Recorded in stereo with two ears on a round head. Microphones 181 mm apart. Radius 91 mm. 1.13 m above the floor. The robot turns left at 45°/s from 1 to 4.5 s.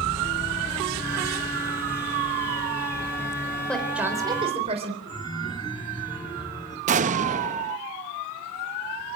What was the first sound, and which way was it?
A woman speaking, 5° left.